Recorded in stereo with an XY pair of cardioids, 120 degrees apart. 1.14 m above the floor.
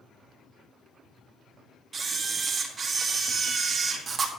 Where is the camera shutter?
35° right, 1.9 m.